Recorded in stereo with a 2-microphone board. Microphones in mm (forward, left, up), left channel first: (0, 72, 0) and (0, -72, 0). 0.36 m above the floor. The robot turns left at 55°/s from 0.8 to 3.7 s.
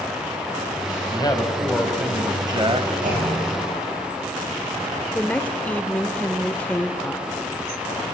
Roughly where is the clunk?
Ahead right.